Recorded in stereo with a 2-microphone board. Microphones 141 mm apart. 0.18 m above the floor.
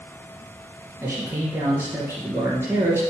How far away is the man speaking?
About 3 m.